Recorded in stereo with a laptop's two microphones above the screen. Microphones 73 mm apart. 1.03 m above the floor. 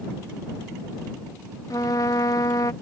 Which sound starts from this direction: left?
A trumpet, at 1.7 s.